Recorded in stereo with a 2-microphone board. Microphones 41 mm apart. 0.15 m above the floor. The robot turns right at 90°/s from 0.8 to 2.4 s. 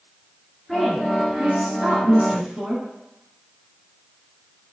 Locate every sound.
0.7 s a woman speaking: 175° left, 1.6 m; by 2.8 s 40° right, 1.6 m